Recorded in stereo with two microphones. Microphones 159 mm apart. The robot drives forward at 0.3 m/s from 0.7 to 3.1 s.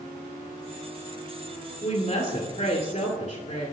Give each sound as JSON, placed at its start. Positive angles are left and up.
{"t": 1.8, "sound": "a woman speaking", "side_deg": 45, "distance_m": 2.5}